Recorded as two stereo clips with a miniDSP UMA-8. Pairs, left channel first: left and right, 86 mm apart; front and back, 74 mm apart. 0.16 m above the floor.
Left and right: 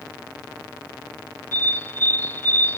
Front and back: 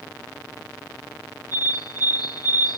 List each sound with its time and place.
1.5 s a bird: 25° left